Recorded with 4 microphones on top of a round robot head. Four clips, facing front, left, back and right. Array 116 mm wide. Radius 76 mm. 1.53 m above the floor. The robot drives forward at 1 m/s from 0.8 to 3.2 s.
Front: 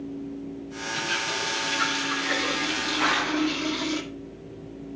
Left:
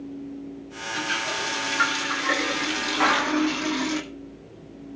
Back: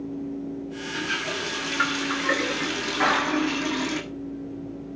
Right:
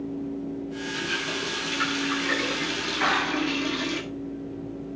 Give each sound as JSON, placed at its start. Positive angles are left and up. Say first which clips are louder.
{"t": 0.9, "sound": "a running tap", "louder": "left 6 dB, even", "azimuth_deg": 130, "distance_m": 6.5}
{"t": 3.0, "sound": "a clap", "louder": "left 4 dB, back 2 dB", "azimuth_deg": 135, "distance_m": 7.5}